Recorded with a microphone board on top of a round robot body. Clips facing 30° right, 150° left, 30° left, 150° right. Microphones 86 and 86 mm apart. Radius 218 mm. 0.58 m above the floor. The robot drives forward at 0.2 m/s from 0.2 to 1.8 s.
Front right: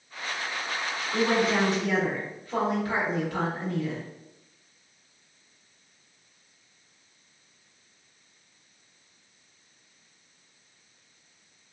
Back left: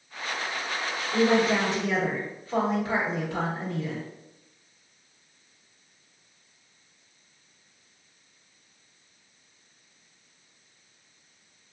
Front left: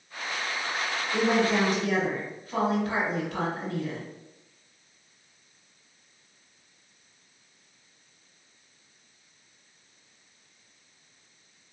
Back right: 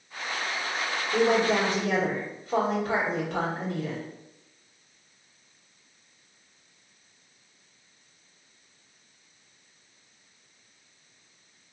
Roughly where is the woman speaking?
Behind right.